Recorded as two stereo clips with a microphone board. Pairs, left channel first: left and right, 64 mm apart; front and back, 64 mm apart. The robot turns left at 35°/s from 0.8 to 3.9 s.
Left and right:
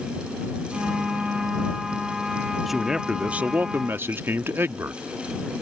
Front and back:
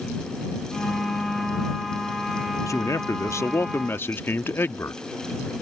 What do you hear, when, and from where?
2.7 s a man speaking: straight ahead; by 5.0 s 45° right